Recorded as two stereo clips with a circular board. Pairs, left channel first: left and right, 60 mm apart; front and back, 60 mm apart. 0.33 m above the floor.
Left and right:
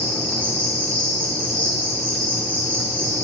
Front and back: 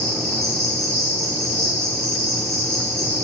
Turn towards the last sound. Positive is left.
turn(degrees=150)